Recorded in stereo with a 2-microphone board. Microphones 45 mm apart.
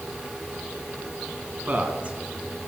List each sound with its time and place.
1.7 s a man speaking: 35° right (ahead or behind), 2.0 m